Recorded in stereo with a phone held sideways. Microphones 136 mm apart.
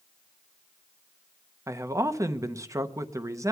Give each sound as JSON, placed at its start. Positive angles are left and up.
{"t": 1.7, "sound": "a man speaking", "side_deg": -20, "distance_m": 0.6}